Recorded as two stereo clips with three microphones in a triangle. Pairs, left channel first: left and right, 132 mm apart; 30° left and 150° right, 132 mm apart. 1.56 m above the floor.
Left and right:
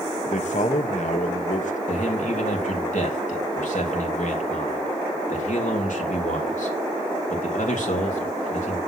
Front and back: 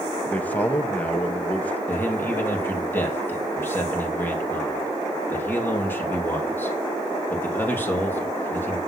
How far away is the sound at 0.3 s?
About 1.7 m.